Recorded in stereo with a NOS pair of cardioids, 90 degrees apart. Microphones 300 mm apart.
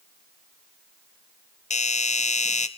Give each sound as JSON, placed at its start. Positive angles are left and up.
{"t": 1.7, "sound": "a doorbell", "azimuth_deg": 25, "distance_m": 1.5}